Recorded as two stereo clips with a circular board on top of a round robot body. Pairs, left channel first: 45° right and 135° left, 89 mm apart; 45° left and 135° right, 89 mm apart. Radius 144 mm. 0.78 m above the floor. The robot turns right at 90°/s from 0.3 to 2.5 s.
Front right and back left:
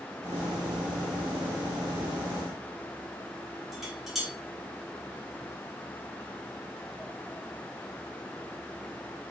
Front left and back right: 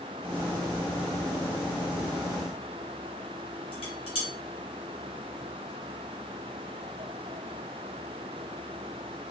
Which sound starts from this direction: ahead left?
Dishes clattering, at 3.7 s.